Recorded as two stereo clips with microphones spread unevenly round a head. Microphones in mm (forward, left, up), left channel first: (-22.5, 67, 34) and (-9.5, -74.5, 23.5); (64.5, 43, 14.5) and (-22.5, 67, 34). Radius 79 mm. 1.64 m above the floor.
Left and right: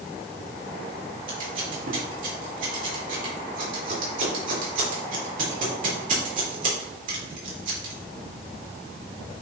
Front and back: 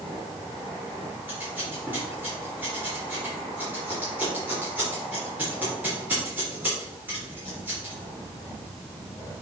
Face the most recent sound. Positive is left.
turn(degrees=-120)